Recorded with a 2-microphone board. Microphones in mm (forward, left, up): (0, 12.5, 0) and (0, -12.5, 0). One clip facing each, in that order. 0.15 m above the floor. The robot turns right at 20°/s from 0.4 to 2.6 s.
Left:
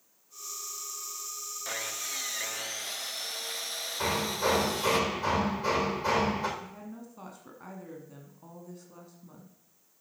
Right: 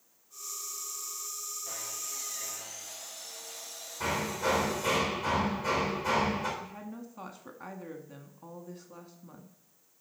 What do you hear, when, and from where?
1.6 s sawing: 65° left (ahead or behind), 0.5 m
4.0 s hammering: 55° left (ahead or behind), 4 m
6.6 s a woman speaking: 15° right (ahead or behind), 1.0 m